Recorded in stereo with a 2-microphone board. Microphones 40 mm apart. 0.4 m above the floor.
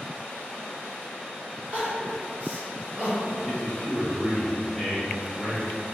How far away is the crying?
About 1.6 m.